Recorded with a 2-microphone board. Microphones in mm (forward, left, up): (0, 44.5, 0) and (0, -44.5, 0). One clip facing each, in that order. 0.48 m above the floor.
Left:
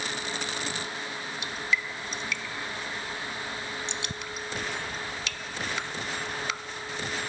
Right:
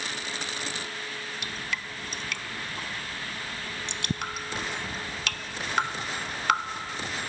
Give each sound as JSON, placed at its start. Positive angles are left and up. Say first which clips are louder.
{"t": 1.4, "sound": "dripping", "louder": "left 7 dB", "side_deg": -60}